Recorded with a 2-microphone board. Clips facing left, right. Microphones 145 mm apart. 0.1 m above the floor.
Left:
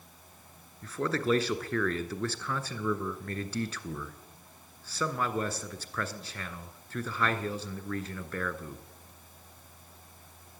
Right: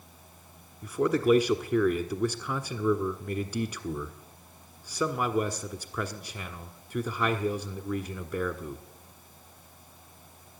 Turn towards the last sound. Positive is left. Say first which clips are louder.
# right 6 dB
turn(degrees=-15)  # may be behind; listen again after turning